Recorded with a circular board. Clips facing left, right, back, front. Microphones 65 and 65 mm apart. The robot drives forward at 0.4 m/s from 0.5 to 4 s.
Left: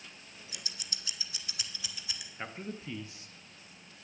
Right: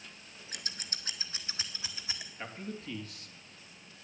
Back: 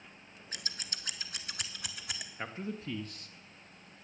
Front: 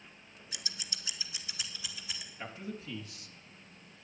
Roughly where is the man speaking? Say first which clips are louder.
Left 2 dB, back 3 dB; behind left.